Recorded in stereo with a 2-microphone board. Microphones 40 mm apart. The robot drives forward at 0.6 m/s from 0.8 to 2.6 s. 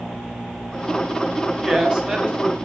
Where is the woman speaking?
25° right (ahead or behind), 4.5 m; by 2.5 s 30° right (ahead or behind), 4 m.